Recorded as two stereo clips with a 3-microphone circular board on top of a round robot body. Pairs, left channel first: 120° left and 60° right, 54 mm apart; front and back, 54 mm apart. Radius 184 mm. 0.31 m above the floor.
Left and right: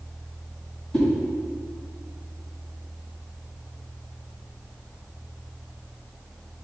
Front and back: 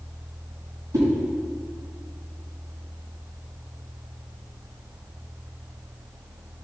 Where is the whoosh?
160° right, 2.5 m.